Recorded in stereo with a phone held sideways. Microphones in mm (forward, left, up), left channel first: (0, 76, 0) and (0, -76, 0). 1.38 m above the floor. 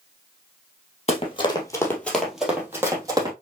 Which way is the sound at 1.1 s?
45° left (ahead or behind).